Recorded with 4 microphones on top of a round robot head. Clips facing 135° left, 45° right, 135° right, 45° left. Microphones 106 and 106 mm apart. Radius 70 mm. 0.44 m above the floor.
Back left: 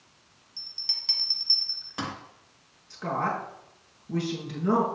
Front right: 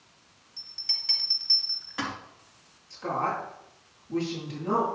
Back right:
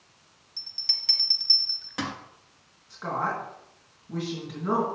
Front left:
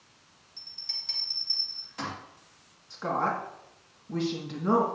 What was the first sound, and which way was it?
A bell, 160° right.